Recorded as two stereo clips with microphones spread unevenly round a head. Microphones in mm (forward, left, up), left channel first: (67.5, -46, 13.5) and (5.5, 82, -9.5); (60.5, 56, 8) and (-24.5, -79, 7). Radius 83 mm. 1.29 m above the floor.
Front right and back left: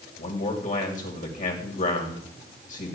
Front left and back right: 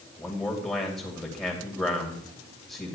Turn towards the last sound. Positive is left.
turn(degrees=-25)